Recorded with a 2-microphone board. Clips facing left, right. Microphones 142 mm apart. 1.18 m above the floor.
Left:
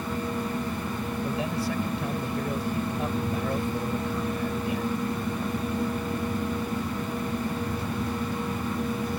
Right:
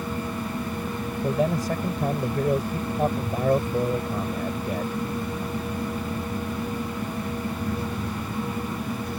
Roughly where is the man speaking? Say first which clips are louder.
Right 7 dB; right.